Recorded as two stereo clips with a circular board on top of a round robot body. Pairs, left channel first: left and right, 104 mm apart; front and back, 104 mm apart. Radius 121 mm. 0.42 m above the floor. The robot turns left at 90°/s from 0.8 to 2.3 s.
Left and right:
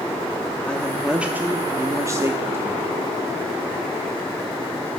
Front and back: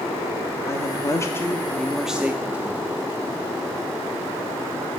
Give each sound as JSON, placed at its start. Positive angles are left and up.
{"t": 0.7, "sound": "a woman speaking", "azimuth_deg": 15, "distance_m": 0.8}